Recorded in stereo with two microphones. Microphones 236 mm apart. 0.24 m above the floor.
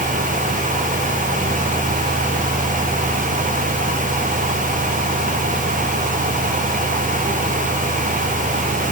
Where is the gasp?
No gasp in this recording.